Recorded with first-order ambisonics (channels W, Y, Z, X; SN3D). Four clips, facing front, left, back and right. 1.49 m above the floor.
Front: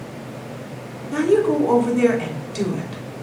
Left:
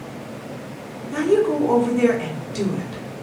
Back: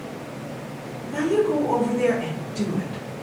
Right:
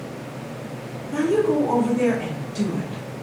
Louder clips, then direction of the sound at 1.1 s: Left 1 dB, front 4 dB; 25° left.